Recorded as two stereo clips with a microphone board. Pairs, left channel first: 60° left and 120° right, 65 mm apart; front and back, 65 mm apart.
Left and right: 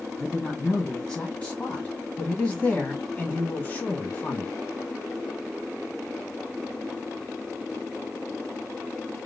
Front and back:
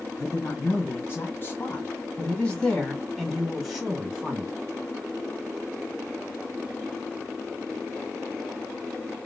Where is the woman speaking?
15° right, 1.9 m; by 4.5 s 115° left, 1.8 m.